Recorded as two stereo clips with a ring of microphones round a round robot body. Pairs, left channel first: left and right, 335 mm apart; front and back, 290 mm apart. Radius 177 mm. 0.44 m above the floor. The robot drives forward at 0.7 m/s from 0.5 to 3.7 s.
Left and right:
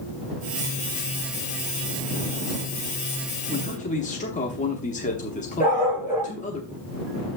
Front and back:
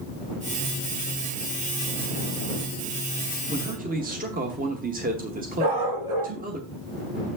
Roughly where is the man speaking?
Behind left.